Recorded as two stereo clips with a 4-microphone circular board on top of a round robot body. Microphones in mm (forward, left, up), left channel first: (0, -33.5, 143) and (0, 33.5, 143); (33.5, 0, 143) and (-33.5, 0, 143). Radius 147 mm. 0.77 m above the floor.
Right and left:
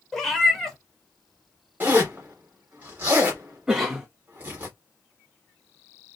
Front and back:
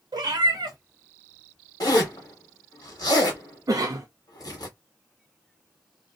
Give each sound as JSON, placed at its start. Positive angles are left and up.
{"t": 0.1, "sound": "a cat meowing", "azimuth_deg": -175, "distance_m": 0.8}
{"t": 1.8, "sound": "a zipper", "azimuth_deg": 30, "distance_m": 0.7}
{"t": 3.7, "sound": "a cough", "azimuth_deg": 165, "distance_m": 0.6}